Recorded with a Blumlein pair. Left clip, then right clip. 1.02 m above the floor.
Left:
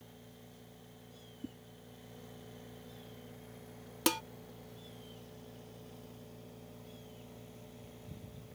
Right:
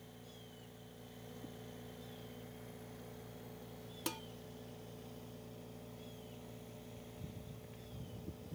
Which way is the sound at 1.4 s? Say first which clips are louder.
Left 8 dB; 25° left.